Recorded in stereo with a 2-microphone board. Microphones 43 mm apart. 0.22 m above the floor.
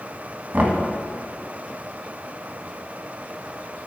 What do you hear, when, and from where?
0.5 s knocking: 40° right (ahead or behind), 1.4 m